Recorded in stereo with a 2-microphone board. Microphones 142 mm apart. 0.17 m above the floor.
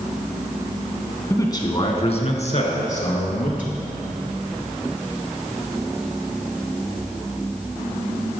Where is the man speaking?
20° left (ahead or behind), 1.4 m; by 3.7 s 65° left (ahead or behind), 3.5 m.